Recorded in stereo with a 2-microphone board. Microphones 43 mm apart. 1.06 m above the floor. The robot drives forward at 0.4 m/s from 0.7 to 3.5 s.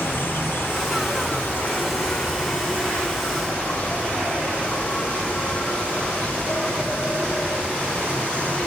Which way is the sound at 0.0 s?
60° left (ahead or behind).